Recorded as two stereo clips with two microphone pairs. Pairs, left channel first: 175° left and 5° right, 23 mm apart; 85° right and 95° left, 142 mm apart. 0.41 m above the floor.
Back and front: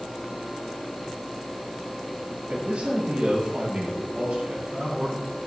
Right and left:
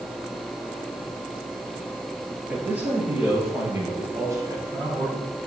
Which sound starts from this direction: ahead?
A man speaking, at 2.5 s.